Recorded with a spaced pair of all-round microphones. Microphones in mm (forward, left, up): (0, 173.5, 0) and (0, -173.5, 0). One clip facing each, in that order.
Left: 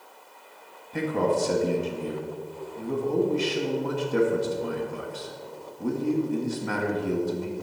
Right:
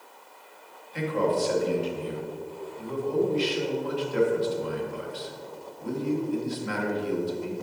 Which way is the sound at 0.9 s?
65° left (ahead or behind).